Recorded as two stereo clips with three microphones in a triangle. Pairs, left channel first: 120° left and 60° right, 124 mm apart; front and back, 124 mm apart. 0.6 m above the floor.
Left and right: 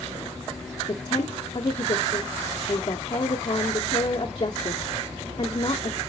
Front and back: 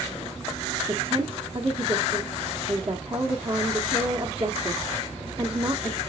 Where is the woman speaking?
160° left, 0.9 m.